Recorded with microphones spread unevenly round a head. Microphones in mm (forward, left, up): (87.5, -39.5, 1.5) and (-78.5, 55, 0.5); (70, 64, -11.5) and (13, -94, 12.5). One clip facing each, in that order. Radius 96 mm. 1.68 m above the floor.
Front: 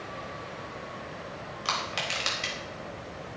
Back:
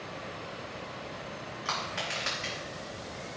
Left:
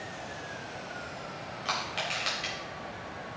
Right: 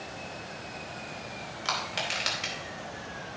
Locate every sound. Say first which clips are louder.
1.6 s crushing: front 2 dB, right 1 dB; 75° right, 4 m